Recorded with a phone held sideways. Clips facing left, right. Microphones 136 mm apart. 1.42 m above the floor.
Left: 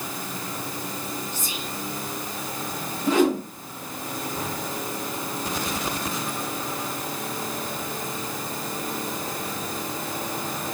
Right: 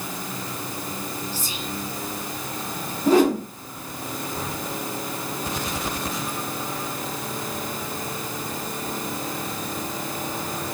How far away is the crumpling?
I don't hear crumpling.